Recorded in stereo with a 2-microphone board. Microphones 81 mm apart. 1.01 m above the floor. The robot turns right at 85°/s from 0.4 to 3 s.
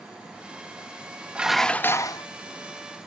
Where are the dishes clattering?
15° right; by 2.2 s 60° left.